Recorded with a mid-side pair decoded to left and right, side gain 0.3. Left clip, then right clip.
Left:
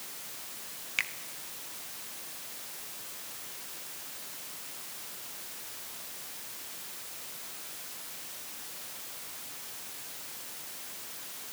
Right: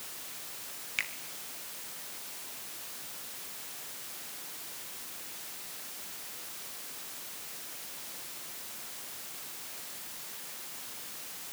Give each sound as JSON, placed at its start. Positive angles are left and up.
{"t": 1.0, "sound": "a finger snap", "azimuth_deg": 20, "distance_m": 2.0}